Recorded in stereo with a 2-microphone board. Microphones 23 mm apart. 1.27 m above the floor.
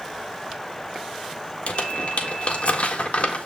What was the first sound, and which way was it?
Crumpling, 65° left (ahead or behind).